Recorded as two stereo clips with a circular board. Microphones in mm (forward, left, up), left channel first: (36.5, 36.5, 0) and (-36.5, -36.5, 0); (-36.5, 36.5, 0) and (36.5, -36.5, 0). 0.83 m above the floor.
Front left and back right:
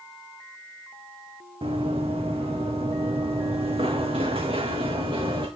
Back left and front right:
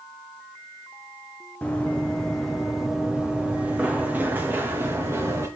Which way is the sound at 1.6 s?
150° right.